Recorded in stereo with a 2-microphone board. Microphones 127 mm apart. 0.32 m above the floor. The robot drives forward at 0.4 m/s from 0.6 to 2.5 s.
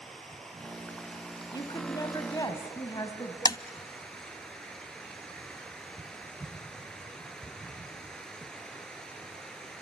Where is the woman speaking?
35° left (ahead or behind), 2.5 m; by 3.4 s 30° left (ahead or behind), 2.5 m.